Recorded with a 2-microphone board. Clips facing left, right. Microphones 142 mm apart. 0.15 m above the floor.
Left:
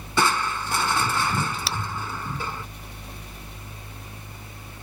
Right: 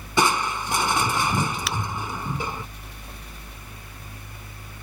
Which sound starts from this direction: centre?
Crushing, at 0.2 s.